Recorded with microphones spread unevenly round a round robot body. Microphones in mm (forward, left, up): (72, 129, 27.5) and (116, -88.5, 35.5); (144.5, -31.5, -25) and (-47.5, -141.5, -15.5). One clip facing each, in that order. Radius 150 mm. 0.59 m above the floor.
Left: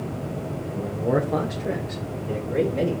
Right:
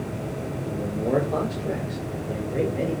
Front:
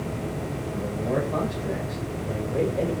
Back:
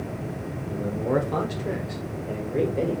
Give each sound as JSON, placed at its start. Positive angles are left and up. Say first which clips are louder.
{"t": 0.7, "sound": "a man speaking", "louder": "even, back 3 dB", "azimuth_deg": -160, "distance_m": 2.0}